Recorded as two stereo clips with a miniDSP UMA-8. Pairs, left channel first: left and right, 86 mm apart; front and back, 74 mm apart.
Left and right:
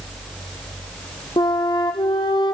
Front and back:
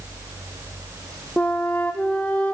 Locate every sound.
1.4 s a flute: 75° left, 1.2 m